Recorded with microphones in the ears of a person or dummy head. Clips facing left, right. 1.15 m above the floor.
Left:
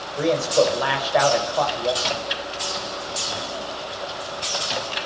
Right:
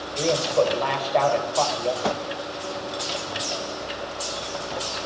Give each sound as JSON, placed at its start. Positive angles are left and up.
{"t": 0.2, "sound": "a man speaking", "side_deg": 15, "distance_m": 4.0}
{"t": 2.0, "sound": "a whoosh", "side_deg": -70, "distance_m": 0.6}